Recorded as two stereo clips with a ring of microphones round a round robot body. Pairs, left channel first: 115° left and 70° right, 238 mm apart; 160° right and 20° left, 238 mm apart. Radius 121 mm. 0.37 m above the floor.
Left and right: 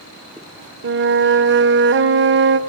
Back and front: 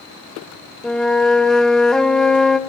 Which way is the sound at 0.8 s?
70° right.